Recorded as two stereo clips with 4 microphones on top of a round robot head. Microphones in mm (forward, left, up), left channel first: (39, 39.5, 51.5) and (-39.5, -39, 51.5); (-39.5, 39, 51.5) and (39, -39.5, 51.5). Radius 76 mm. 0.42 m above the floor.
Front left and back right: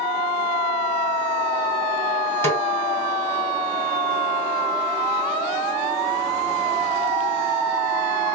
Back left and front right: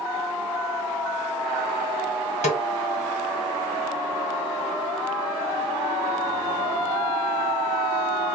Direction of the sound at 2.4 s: 115° left.